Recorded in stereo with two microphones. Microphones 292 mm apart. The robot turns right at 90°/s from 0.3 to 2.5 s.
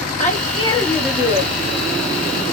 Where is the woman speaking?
25° left (ahead or behind), 1.1 m; by 1.5 s 20° right (ahead or behind), 1.1 m.